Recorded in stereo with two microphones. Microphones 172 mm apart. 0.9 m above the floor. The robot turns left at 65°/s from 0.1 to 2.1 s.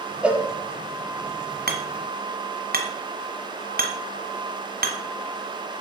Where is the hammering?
70° right (ahead or behind), 1.7 m; by 5.0 s 65° right (ahead or behind), 1.7 m.